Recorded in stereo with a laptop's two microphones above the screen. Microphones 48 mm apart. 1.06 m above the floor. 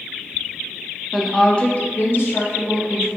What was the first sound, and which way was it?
A woman speaking, centre (ahead or behind).